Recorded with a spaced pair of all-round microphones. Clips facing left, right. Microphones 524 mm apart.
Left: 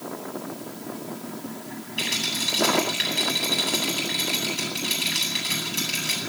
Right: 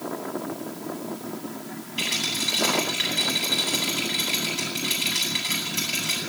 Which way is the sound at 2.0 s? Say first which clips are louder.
Even; 25° right (ahead or behind).